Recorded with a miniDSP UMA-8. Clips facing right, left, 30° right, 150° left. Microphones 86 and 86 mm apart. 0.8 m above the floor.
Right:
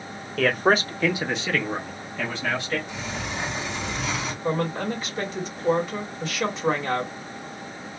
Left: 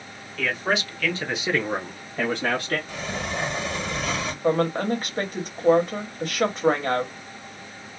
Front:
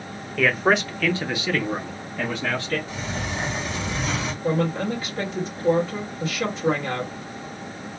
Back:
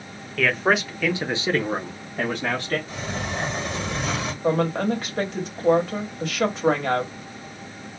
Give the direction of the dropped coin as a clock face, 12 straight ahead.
I don't hear a dropped coin.